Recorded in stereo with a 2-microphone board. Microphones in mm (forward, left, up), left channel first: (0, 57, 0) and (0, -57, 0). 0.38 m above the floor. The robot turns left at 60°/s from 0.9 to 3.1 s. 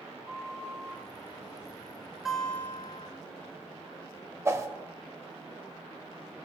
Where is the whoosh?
25° right (ahead or behind), 1.2 m.